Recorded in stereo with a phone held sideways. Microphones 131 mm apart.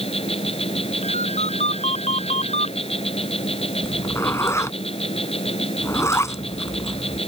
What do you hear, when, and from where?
0.0 s an insect: 50° left (ahead or behind)
1.0 s a ringtone: 55° left (ahead or behind)
3.8 s a zipper: 20° left (ahead or behind)